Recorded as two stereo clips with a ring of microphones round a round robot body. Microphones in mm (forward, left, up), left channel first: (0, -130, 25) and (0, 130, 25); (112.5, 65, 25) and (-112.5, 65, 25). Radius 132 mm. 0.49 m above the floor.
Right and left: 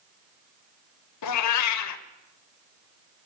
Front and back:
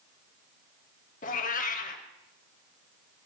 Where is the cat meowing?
65° right, 0.7 m.